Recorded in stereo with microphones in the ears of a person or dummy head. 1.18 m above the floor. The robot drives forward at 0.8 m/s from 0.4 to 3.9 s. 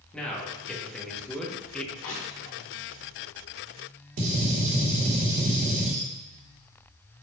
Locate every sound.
0.1 s a man speaking: centre (ahead or behind), 2.0 m; by 1.9 s 5° left (ahead or behind), 0.8 m
2.0 s crushing: 65° left (ahead or behind), 1.5 m; by 2.6 s 55° left (ahead or behind), 1.7 m
4.2 s a gunshot: 45° right (ahead or behind), 1.7 m